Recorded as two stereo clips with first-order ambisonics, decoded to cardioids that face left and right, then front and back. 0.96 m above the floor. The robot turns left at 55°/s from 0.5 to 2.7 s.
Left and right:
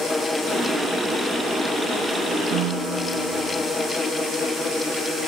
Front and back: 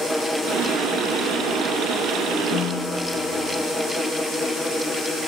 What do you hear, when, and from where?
2.5 s a piano: 55° right, 2.5 m; by 3.7 s 65° right, 2.5 m